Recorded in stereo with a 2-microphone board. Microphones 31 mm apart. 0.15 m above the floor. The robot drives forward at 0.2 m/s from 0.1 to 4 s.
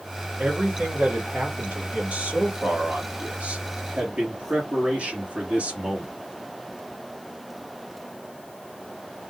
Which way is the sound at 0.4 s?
55° right (ahead or behind).